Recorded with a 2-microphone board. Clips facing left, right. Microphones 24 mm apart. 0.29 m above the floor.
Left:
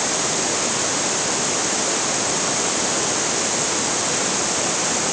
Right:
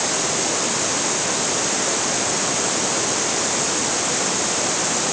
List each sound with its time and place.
Only background noise.